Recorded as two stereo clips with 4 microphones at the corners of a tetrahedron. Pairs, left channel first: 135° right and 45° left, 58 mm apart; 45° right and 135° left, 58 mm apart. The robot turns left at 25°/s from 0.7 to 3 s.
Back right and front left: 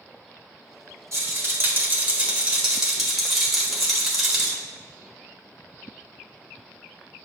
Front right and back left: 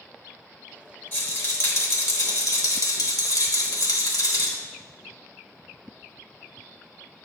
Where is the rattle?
5° left, 1.3 m; by 4.6 s 40° right, 1.3 m.